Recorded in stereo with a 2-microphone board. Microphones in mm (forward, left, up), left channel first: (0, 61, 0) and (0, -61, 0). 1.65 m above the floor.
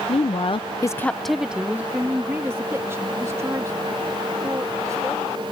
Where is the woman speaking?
50° left (ahead or behind); by 5.4 s 25° right (ahead or behind).